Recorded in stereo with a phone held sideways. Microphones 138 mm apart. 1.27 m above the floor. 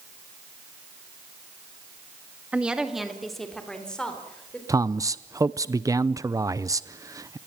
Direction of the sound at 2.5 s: 10° right (ahead or behind).